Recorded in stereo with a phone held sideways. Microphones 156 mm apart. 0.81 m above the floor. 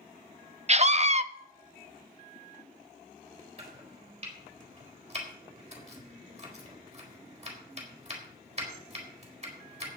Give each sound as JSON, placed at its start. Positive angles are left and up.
{"t": 0.7, "sound": "a scream", "side_deg": -45, "distance_m": 0.7}
{"t": 3.6, "sound": "chopping", "side_deg": -45, "distance_m": 3.5}